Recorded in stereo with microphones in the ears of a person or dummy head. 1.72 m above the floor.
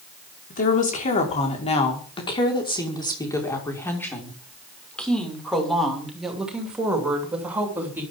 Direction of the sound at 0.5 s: 50° left (ahead or behind).